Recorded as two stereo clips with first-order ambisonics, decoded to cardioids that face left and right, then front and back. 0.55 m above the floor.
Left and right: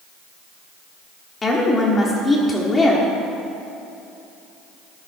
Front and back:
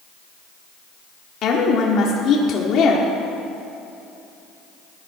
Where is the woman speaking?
25° left, 1.2 m.